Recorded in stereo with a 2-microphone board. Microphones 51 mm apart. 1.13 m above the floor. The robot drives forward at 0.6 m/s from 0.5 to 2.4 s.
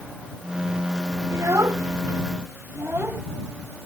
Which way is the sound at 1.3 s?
80° right.